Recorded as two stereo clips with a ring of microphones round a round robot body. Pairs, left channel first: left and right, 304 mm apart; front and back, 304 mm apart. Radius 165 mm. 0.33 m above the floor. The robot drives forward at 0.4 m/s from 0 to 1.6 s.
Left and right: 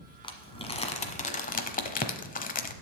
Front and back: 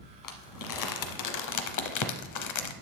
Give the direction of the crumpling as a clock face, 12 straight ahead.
11 o'clock.